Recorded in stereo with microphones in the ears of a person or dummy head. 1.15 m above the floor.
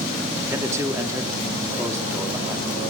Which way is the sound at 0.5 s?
15° right (ahead or behind).